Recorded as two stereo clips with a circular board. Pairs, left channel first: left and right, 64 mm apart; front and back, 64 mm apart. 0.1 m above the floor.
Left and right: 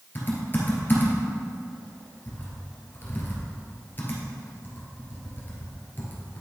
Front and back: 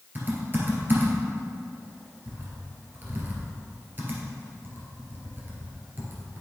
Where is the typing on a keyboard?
135° left, 2 m.